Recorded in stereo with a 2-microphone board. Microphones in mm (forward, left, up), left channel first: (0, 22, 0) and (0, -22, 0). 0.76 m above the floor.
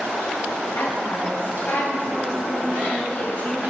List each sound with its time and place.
0.8 s a woman speaking: 60° left (ahead or behind), 3.5 m; by 3.6 s 30° left (ahead or behind), 4.5 m